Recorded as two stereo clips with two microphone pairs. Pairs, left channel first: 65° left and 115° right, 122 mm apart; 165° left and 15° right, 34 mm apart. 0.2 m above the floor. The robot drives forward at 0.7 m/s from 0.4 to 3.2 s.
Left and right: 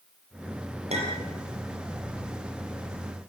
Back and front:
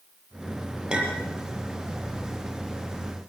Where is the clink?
85° right, 4 m; by 1.3 s 90° right, 4 m.